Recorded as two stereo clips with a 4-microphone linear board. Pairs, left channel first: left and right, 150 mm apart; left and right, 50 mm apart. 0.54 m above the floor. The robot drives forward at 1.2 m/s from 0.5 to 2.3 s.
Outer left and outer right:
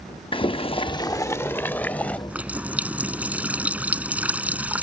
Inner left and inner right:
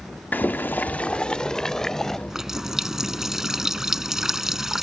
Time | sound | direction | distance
0.3 | boiling | 35° left (ahead or behind) | ?
2.3 | a running tap | 10° right (ahead or behind) | ?